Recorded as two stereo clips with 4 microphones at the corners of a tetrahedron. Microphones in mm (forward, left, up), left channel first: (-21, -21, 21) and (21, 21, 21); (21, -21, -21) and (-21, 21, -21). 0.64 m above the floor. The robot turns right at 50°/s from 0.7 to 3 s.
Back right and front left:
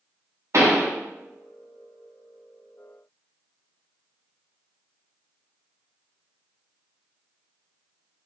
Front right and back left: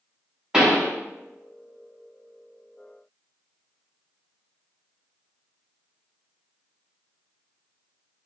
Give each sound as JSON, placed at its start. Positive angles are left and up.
{"t": 0.5, "sound": "a pop", "azimuth_deg": 60, "distance_m": 0.7}